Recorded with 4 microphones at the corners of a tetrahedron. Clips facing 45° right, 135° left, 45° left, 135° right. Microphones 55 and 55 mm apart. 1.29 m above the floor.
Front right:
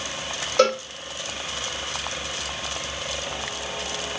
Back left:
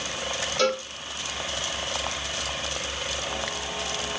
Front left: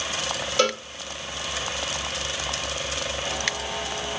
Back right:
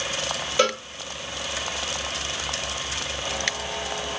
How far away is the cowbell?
About 2 m.